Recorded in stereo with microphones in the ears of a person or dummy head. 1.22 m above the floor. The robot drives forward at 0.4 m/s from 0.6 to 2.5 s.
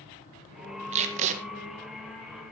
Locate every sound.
0.9 s tape being pulled: 35° right (ahead or behind), 1.6 m; by 1.4 s 40° right (ahead or behind), 1.5 m